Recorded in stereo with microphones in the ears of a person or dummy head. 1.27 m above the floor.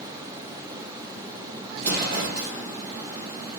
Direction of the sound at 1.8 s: 50° right (ahead or behind).